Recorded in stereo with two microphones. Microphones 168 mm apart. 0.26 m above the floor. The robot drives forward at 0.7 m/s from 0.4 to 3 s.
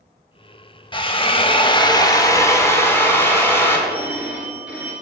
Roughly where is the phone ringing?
Centre.